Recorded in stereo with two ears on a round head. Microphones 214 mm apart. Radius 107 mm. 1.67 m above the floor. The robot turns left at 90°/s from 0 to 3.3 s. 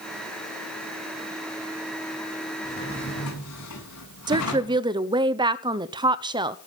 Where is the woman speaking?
20° right (ahead or behind), 0.9 m.